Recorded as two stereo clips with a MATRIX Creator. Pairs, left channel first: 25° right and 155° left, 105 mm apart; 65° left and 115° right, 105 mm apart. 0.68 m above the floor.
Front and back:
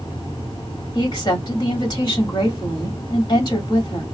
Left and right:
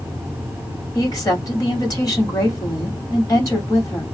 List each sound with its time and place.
0.9 s a woman speaking: 20° left, 2 m